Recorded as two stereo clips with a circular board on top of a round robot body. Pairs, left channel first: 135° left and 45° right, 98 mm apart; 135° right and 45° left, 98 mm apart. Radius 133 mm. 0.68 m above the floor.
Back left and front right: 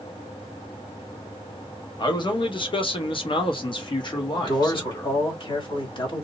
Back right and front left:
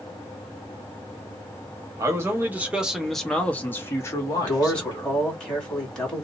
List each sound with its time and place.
2.0 s a man speaking: 100° left, 1.1 m; by 5.2 s 175° right, 1.5 m
4.4 s a man speaking: 145° left, 1.9 m